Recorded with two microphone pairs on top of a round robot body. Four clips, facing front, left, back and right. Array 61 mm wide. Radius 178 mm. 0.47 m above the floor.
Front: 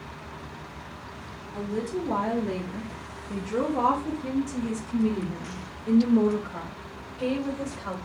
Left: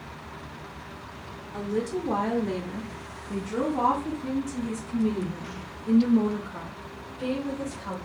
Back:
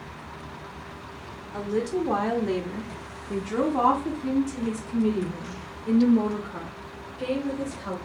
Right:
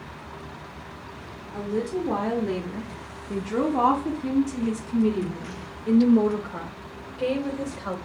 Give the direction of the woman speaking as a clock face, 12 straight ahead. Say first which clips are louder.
Right 1 dB, back 4 dB; 7 o'clock.